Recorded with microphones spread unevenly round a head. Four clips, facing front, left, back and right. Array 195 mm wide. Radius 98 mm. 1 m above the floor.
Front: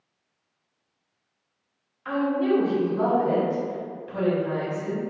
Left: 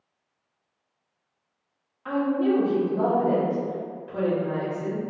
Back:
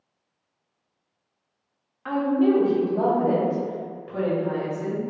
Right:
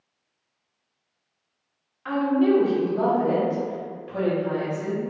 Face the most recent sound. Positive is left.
turn(degrees=-170)